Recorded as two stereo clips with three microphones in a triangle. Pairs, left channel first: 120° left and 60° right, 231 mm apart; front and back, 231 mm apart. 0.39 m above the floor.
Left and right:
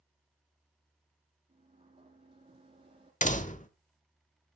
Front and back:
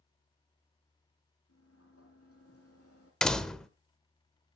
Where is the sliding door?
5° left, 6 m.